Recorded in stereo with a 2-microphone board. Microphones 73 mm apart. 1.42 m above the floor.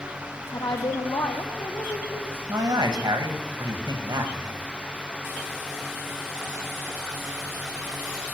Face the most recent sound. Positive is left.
turn(degrees=-75)  # may be behind; listen again after turning